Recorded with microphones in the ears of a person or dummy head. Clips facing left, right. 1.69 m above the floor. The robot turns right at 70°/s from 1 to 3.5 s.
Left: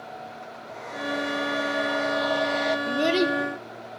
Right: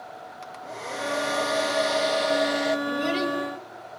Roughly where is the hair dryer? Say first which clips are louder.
Right 2 dB; behind right.